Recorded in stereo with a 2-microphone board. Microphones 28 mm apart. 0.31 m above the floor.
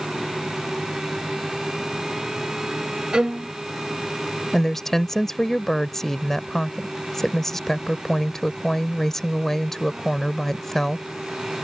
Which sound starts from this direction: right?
A violin, at 3.1 s.